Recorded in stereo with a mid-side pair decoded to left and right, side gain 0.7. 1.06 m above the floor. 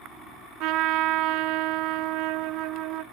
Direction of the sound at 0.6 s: 60° right.